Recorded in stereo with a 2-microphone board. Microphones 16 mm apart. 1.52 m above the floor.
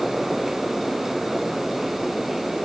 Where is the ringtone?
No ringtone in this recording.